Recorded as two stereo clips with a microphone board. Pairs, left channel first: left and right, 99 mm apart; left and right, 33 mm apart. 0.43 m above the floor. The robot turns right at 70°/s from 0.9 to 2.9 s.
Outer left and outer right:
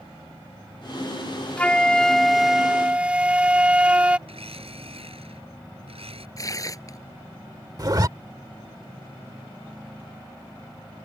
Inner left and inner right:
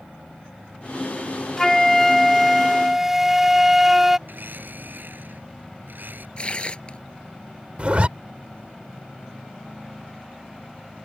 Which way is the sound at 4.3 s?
75° right (ahead or behind).